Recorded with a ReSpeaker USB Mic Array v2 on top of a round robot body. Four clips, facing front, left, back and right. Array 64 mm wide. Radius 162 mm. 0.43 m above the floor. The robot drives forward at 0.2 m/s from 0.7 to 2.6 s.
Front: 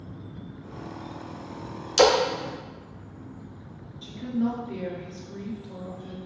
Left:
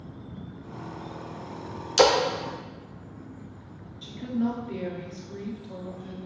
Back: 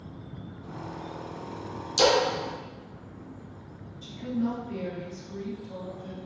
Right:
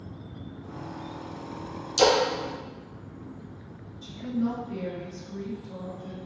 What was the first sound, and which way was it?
A splash, 55° left.